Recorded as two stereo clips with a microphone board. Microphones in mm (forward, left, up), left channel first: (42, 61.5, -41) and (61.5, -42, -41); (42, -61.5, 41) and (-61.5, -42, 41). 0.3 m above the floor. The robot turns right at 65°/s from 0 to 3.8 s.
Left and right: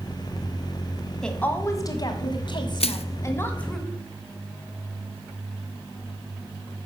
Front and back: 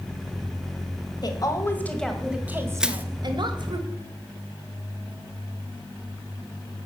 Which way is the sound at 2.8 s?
85° left.